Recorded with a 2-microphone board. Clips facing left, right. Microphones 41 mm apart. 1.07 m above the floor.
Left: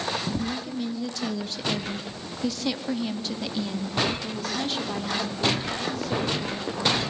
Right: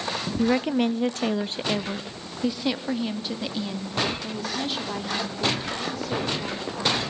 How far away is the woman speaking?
About 0.7 m.